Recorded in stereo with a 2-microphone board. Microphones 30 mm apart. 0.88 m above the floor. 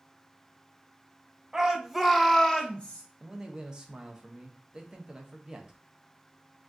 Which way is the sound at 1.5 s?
20° right (ahead or behind).